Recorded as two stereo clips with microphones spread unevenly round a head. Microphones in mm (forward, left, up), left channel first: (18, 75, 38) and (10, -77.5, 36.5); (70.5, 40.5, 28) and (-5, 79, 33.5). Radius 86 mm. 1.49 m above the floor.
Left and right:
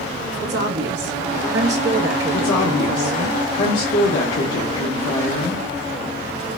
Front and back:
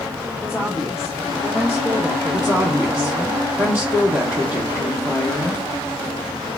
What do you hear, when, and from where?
0.4 s a woman speaking: 120° right, 0.8 m
2.3 s a woman speaking: 85° left, 1.1 m